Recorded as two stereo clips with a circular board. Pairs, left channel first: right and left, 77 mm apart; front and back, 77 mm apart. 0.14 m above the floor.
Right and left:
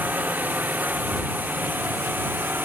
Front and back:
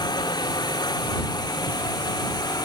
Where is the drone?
20° left; by 2.6 s 25° left.